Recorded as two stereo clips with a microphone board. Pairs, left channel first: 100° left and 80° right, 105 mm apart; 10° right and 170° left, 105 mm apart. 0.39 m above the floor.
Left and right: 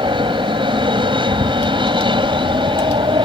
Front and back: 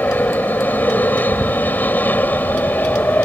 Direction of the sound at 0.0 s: 80° right.